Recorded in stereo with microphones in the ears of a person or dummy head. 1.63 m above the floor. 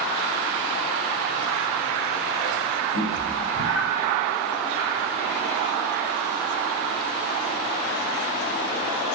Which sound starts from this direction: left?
A cat meowing, at 2.9 s.